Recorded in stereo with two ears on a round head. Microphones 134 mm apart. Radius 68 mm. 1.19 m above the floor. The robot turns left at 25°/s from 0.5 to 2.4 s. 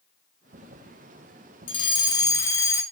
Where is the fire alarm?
35° left (ahead or behind), 2.5 m; by 2.8 s 20° left (ahead or behind), 2.5 m.